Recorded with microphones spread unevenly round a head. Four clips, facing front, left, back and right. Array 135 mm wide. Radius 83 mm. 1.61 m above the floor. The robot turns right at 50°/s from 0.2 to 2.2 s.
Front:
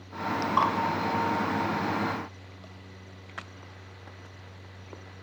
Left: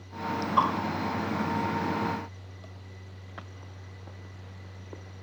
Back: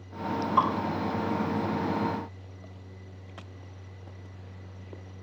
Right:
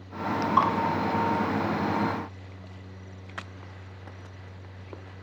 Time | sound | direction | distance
0.6 | dripping | 100° right | 1.7 m